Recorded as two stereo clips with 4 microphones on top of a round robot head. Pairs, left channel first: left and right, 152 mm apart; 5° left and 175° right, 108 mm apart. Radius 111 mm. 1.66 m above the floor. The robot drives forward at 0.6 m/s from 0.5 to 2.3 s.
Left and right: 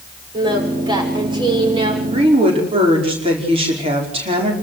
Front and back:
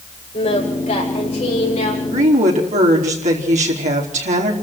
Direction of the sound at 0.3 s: 30° right.